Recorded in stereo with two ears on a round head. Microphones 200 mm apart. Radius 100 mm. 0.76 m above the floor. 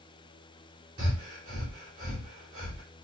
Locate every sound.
1.0 s breathing: 35° right (ahead or behind), 2 m